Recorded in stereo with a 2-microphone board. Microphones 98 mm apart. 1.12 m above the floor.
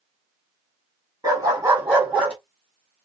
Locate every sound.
1.2 s a dog barking: 30° right (ahead or behind), 3.5 m; by 2.4 s 10° right (ahead or behind), 3.5 m